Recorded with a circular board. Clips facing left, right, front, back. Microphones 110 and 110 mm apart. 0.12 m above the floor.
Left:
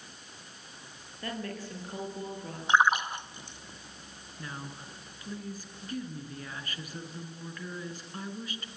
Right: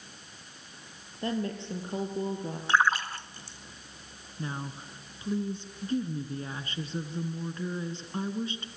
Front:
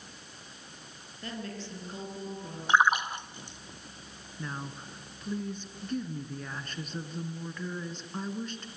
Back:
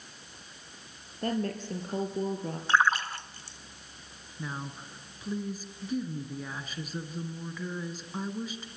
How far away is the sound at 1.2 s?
About 3 m.